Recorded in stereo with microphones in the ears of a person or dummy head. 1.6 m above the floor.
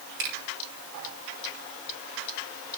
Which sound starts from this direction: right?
A finger snap, at 0.2 s.